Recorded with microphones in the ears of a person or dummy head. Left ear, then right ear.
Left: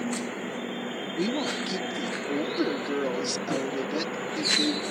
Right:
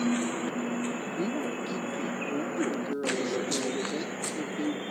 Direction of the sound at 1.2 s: 45° left (ahead or behind).